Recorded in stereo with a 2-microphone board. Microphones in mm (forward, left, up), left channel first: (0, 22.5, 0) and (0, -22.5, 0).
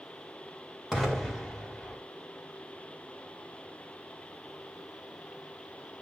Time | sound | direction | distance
0.9 | an explosion | 10° left (ahead or behind) | 2 m